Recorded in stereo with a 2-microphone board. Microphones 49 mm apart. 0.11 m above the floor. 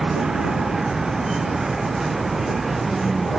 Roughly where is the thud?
I don't hear a thud.